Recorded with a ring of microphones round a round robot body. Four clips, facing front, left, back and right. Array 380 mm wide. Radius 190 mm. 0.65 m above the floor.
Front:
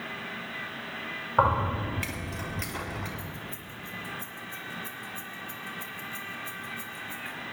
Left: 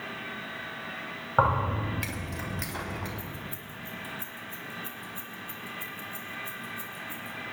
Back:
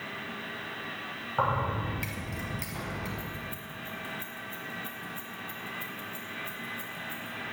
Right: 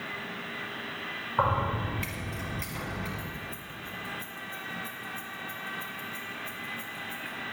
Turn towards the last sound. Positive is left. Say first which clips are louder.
# right 1 dB, back 1 dB
turn(degrees=75)